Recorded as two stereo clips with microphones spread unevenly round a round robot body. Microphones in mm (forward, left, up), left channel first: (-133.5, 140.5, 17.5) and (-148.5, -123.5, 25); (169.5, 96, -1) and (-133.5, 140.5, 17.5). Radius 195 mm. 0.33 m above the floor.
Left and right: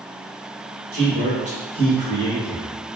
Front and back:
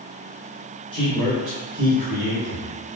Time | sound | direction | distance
0.9 | a man speaking | 65° right | 1.0 m